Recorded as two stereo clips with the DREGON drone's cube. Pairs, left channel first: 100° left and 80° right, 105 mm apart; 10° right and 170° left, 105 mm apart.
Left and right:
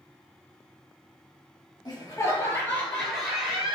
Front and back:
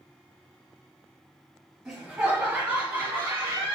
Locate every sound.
1.9 s laughter: 85° left, 1.6 m; by 3.8 s 150° right, 1.5 m